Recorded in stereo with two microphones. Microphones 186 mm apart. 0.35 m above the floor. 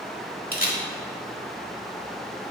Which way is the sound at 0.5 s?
50° left (ahead or behind).